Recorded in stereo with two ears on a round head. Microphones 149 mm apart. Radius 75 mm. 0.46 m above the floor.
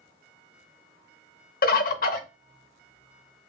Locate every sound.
1.6 s a bird: 55° left (ahead or behind), 0.6 m